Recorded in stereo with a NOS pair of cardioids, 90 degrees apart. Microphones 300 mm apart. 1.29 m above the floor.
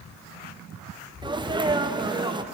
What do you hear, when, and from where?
1.2 s a sneeze: 15° right, 1.2 m